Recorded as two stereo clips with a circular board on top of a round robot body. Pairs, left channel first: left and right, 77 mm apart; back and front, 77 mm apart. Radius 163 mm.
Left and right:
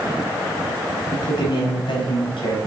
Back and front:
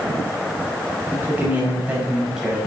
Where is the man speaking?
65° left, 6.5 m; by 2.6 s 85° left, 5.5 m.